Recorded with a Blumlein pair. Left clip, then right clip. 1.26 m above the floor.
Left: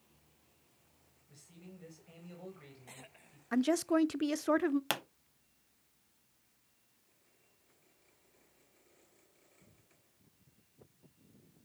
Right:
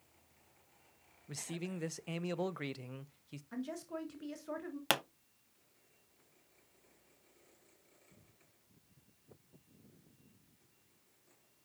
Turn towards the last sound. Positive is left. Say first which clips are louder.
# right 3 dB
turn(degrees=-10)